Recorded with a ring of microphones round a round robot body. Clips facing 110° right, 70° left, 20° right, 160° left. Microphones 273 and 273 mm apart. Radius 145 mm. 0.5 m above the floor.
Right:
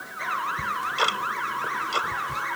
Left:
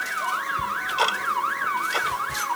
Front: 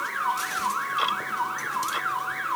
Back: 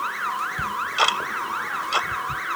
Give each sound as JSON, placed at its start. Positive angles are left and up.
{"t": 0.6, "sound": "ticking", "azimuth_deg": 165}